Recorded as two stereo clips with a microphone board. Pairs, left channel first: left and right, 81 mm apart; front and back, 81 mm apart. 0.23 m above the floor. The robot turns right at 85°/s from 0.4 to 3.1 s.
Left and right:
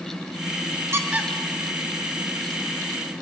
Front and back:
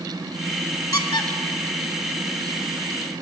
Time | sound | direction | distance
0.9 | a squeak | 35° right | 0.6 m